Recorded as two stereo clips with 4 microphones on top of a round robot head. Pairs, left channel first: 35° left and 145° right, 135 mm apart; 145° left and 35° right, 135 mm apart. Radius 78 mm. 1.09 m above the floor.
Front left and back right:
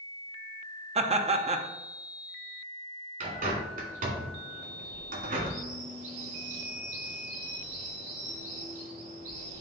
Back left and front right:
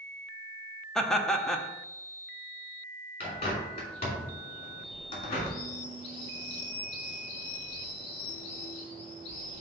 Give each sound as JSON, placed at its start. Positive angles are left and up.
{"t": 0.9, "sound": "laughter", "azimuth_deg": -130, "distance_m": 0.9}
{"t": 3.2, "sound": "a bird", "azimuth_deg": -165, "distance_m": 2.5}